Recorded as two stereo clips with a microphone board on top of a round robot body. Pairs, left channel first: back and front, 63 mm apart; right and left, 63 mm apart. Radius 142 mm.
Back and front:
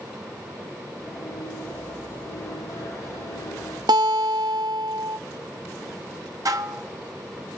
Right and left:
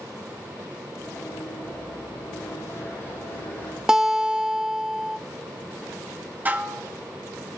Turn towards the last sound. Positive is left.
turn(degrees=30)